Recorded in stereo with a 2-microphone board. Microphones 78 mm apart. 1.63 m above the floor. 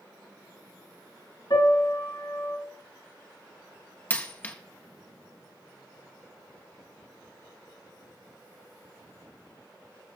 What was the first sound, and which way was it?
A piano, 75° left (ahead or behind).